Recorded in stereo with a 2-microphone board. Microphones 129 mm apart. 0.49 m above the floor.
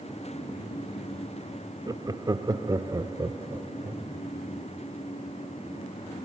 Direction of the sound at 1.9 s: 30° right (ahead or behind).